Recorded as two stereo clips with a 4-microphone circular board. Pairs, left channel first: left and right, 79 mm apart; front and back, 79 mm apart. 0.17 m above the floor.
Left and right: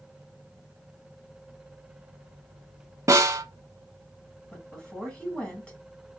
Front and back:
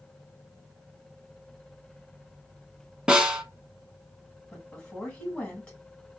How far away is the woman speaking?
About 1.6 m.